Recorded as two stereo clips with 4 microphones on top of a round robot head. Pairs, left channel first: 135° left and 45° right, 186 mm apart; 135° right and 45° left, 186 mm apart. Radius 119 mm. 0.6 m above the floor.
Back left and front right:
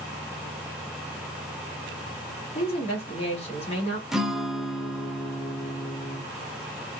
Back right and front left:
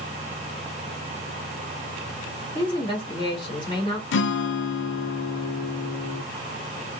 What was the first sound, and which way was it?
A woman speaking, 170° left.